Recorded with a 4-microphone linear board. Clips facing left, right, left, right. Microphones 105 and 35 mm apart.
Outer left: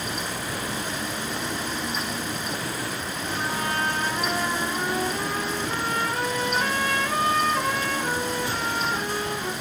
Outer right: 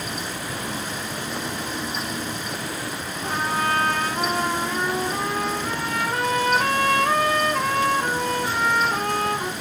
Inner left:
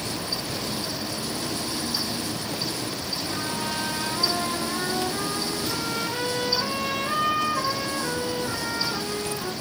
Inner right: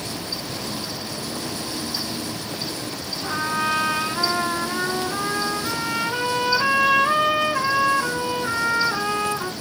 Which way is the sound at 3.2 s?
85° right.